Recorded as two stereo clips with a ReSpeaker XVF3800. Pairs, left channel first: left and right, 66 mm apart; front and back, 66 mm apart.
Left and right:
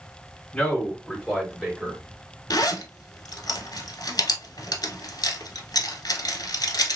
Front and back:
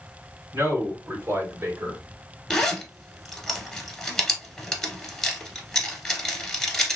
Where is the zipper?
80° left, 0.8 m.